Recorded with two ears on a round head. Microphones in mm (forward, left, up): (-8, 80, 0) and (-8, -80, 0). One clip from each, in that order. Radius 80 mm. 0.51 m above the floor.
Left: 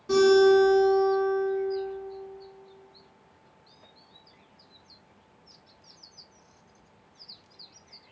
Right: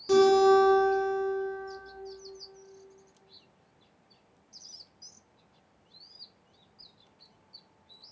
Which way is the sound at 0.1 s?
50° right (ahead or behind).